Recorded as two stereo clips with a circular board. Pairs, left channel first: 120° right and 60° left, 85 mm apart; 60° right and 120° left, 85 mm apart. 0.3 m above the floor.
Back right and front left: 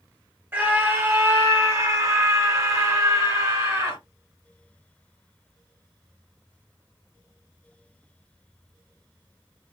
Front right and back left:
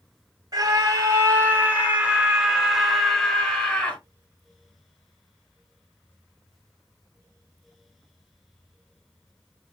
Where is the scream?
110° left, 1.6 m; by 4.0 s 10° left, 2.0 m.